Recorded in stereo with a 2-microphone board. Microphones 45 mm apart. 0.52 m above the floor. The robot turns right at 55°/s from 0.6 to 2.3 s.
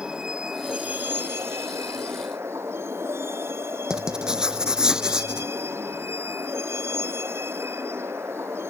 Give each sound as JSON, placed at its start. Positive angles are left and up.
{"t": 0.0, "sound": "a vehicle", "azimuth_deg": -160}
{"t": 3.9, "sound": "writing", "side_deg": -15}